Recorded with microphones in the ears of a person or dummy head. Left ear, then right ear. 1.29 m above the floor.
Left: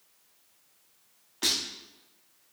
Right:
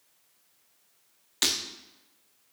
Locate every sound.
1.4 s breaking glass: 35° right (ahead or behind), 0.9 m